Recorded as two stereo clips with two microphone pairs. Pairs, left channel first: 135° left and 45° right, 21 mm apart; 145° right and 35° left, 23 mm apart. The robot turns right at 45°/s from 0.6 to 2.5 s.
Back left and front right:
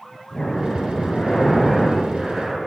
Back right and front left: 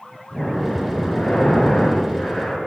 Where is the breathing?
165° left, 2.5 m; by 2.6 s 105° right, 2.5 m.